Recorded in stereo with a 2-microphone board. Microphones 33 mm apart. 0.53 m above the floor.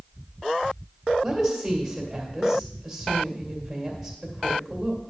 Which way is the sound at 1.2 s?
5° right (ahead or behind).